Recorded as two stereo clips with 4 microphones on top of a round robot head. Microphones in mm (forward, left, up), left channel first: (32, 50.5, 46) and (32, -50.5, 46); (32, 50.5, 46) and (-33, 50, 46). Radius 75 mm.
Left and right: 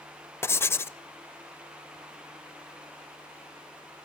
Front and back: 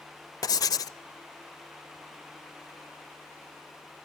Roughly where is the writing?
Ahead left.